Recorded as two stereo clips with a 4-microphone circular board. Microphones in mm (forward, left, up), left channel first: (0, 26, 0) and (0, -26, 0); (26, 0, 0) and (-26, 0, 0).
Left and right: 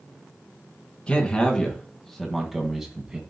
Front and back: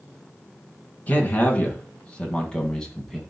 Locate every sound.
1.1 s a man speaking: 35° left, 2 m; by 3.2 s 60° right, 1.7 m